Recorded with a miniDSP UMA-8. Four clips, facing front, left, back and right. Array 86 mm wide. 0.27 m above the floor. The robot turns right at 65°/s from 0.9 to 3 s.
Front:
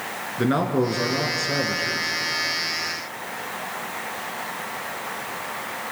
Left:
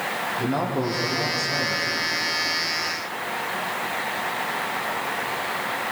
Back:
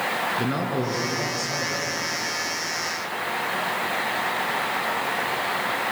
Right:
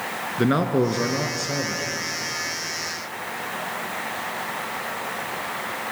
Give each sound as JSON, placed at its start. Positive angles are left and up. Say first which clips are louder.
{"t": 0.4, "sound": "a man speaking", "louder": "right 6 dB, front 4 dB", "azimuth_deg": -70, "distance_m": 3.0}